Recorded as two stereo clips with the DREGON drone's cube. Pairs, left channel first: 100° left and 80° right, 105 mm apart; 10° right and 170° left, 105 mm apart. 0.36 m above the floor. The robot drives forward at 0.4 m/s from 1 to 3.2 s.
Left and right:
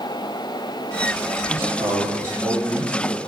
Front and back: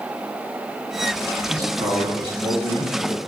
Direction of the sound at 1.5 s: 140° right.